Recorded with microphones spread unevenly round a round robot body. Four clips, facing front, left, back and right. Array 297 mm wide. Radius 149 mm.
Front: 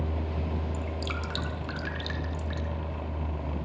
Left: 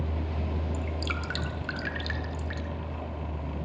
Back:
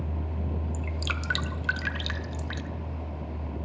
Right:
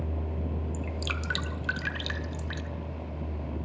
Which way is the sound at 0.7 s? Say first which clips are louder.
Left 1 dB, front 1 dB; 155° left.